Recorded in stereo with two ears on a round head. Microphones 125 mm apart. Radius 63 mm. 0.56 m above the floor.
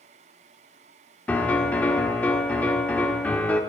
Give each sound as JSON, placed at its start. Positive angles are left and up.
{"t": 1.3, "sound": "a piano", "side_deg": 10, "distance_m": 1.1}